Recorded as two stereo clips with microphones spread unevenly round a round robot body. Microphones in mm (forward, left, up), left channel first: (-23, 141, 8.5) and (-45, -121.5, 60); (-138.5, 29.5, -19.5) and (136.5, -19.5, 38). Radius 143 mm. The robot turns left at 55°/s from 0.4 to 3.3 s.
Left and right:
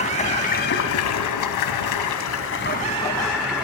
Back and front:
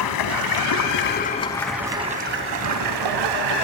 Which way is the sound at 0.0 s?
150° left.